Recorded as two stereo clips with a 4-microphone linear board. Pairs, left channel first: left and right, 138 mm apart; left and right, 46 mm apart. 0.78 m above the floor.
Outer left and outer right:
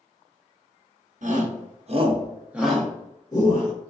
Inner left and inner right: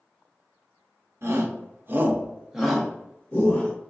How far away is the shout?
About 0.9 m.